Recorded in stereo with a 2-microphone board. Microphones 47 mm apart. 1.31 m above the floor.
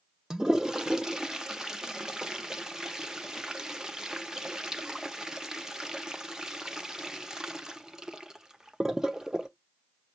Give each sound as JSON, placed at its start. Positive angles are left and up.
{"t": 0.3, "sound": "a toilet flushing", "side_deg": -15, "distance_m": 0.5}